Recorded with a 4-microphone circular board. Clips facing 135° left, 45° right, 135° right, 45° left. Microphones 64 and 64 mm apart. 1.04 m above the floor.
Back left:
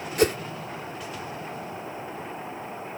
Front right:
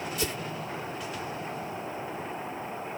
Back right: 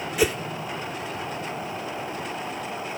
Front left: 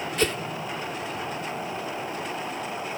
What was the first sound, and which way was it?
A whoosh, 145° left.